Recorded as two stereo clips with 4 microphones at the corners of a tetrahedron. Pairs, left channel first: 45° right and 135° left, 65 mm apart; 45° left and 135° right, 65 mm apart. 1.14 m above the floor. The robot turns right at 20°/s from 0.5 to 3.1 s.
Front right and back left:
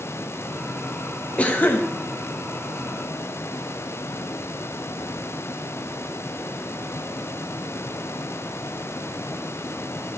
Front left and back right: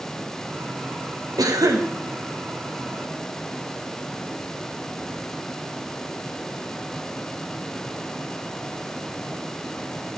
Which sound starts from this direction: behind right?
A cough, at 1.4 s.